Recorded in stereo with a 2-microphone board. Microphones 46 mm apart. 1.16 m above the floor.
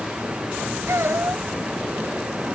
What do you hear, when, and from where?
0.9 s a child speaking: 70° right (ahead or behind)